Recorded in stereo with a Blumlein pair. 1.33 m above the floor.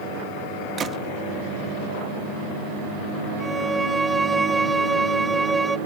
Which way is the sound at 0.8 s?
20° right.